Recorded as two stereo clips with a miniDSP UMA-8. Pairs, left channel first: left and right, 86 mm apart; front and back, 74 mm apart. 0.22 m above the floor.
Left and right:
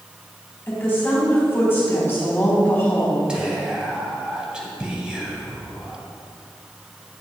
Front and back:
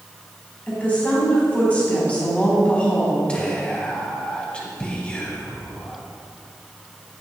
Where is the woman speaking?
55° left, 1.7 m.